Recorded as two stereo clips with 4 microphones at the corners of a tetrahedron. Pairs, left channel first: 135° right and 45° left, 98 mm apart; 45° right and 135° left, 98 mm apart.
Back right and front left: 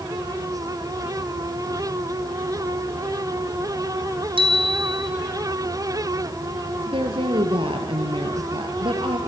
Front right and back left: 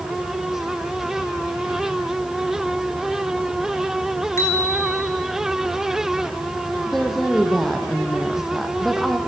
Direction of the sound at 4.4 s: 15° left.